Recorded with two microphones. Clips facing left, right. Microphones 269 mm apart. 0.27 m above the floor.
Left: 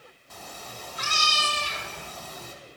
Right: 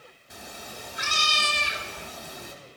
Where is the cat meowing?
15° right (ahead or behind), 0.5 m.